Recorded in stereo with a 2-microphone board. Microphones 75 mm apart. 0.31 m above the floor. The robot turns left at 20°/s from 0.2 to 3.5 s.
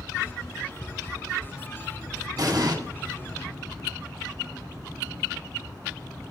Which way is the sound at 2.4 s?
55° right (ahead or behind).